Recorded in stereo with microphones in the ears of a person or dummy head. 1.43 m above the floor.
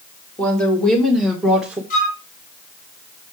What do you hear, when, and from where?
0.4 s a woman speaking: 15° left (ahead or behind), 2.5 m; by 1.8 s 5° right (ahead or behind), 1.6 m
1.9 s a flute: 45° left (ahead or behind), 4.5 m